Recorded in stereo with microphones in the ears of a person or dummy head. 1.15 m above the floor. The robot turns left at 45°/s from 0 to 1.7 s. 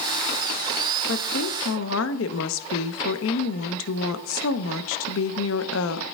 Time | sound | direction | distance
1.1 | a woman speaking | 65° left (ahead or behind) | 0.8 m